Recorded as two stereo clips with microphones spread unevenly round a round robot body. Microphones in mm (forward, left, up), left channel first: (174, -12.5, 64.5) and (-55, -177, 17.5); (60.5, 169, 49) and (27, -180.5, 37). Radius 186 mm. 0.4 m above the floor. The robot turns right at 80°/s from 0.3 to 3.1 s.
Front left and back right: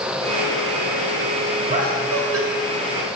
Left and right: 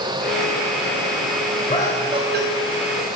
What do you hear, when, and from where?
1.7 s laughter: 155° left, 1.9 m; by 2.5 s 145° right, 1.9 m